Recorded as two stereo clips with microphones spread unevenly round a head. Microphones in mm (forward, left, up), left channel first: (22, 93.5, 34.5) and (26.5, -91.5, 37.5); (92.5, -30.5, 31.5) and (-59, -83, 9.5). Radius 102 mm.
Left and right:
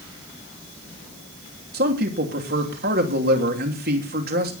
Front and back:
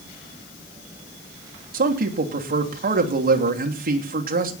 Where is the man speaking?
135° right, 3 m.